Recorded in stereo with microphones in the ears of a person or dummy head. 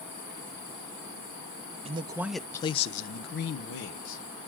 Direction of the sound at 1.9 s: 35° right (ahead or behind).